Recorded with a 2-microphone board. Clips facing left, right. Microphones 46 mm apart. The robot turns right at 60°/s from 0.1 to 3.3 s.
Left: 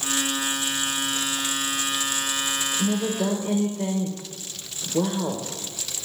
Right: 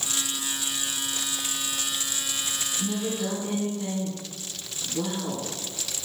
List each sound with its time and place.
2.8 s a woman speaking: 40° left, 1.3 m; by 5.5 s 70° left, 1.3 m